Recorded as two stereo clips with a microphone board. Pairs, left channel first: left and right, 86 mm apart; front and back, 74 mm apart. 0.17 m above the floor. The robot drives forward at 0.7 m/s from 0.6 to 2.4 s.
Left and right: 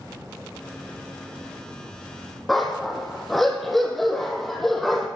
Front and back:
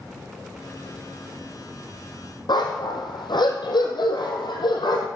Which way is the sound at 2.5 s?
Straight ahead.